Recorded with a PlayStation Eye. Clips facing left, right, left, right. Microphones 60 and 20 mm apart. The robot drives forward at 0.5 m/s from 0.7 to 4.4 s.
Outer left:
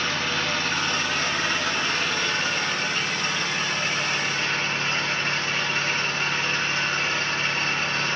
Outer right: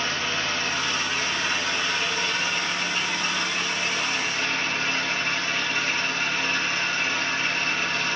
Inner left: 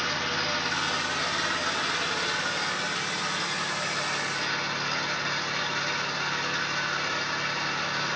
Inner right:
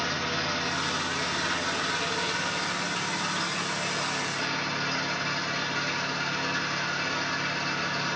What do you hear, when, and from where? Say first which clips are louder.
0.0 s an engine running: outer left 1 dB, inner left 1 dB; 40° left (ahead or behind), 4 m; by 8.2 s 30° left (ahead or behind), 5.5 m